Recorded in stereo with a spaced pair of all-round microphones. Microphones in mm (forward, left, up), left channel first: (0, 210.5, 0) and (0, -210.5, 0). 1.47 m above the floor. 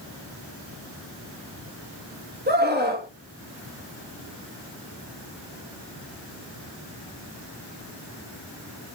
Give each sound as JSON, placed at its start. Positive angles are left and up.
{"t": 2.5, "sound": "a scream", "side_deg": -20, "distance_m": 1.6}